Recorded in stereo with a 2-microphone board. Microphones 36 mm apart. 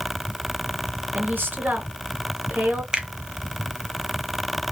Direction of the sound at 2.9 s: 25° right (ahead or behind).